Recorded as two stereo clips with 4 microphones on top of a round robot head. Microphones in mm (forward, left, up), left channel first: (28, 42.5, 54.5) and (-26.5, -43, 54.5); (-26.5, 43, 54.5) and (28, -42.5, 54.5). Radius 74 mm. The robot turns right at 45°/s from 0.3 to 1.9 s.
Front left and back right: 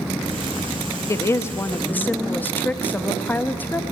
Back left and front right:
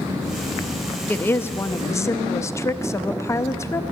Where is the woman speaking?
70° left, 0.5 m; by 3.8 s 110° left, 0.5 m.